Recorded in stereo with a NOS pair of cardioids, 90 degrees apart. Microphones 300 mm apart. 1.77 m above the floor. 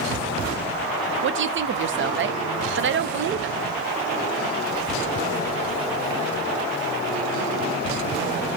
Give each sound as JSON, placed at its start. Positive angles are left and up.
{"t": 1.2, "sound": "a woman speaking", "azimuth_deg": -40, "distance_m": 0.6}